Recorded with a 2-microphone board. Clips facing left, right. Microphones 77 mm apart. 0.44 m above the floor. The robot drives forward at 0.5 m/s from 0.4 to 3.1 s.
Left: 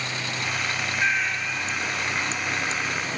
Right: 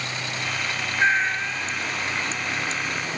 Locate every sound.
1.0 s a cat meowing: 30° right (ahead or behind), 1.3 m; by 1.7 s 25° right (ahead or behind), 1.6 m